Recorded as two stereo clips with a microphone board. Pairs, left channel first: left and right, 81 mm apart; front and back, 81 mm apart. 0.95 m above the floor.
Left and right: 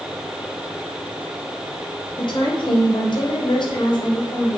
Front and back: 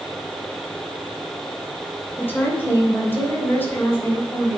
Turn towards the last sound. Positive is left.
turn(degrees=65)